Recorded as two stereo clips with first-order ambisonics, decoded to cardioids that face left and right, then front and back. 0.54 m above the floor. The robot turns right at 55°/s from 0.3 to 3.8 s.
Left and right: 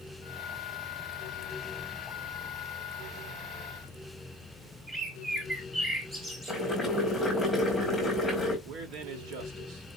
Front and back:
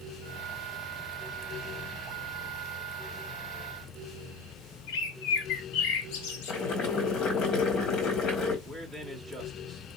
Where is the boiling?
5° left, 1.4 m.